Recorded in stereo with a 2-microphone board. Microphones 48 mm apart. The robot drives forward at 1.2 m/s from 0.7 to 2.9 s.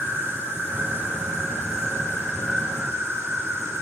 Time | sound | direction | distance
0.0 | an insect | 65° right (ahead or behind) | 4 m